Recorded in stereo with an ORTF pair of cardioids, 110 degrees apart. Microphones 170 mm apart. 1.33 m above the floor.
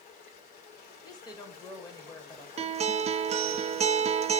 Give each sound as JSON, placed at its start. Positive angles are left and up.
{"t": 0.0, "sound": "running water", "azimuth_deg": 65, "distance_m": 2.0}
{"t": 1.0, "sound": "a woman speaking", "azimuth_deg": 20, "distance_m": 2.0}
{"t": 2.6, "sound": "a guitar", "azimuth_deg": -40, "distance_m": 0.5}